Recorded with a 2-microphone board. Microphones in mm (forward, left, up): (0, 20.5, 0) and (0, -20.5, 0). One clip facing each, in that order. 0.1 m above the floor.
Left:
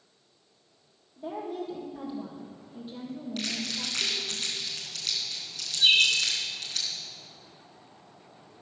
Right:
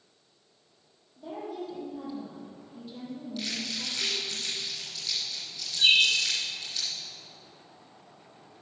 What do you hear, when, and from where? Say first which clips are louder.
1.2 s a woman speaking: left 2 dB; 25° left (ahead or behind), 3 m
3.4 s crumpling: left 1 dB; 65° left (ahead or behind), 3 m
5.8 s a bird: even; 70° right (ahead or behind), 3.5 m